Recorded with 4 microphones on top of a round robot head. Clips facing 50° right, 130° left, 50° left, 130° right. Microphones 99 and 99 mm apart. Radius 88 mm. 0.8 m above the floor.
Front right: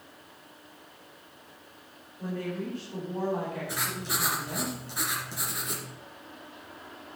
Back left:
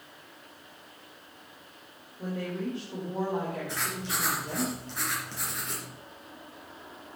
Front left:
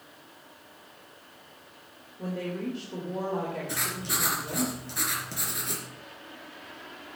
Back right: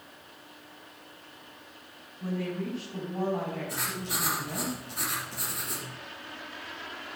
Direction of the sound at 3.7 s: 25° left.